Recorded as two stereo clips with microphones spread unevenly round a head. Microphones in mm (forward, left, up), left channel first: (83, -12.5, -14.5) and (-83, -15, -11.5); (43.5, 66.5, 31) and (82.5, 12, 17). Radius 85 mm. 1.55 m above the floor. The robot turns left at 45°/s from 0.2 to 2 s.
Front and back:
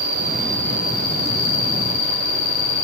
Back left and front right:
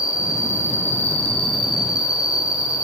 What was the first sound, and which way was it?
An insect, 100° left.